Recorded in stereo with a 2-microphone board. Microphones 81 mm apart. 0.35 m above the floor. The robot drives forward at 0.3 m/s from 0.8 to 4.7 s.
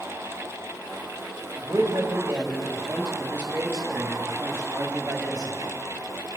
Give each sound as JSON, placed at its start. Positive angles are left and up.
{"t": 1.6, "sound": "a man speaking", "side_deg": -35, "distance_m": 1.4}